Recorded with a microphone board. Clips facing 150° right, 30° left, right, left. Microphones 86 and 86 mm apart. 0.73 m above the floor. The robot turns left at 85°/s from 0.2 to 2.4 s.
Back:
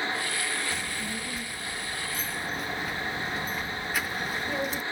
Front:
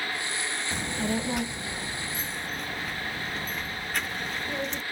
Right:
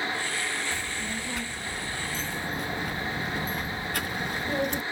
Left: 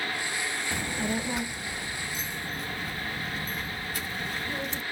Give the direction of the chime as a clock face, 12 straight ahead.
I don't hear a chime.